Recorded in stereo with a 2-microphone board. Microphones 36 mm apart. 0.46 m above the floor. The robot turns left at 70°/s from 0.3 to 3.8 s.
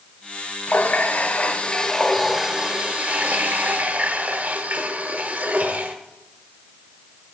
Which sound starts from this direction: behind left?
A running tap, at 0.7 s.